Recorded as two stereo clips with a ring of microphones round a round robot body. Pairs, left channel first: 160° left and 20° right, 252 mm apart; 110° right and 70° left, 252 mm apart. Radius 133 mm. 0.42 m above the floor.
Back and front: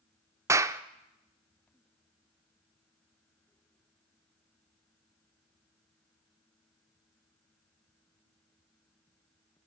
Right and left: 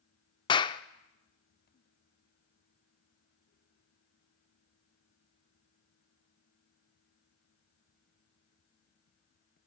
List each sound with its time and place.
0.5 s a clap: 80° right, 0.5 m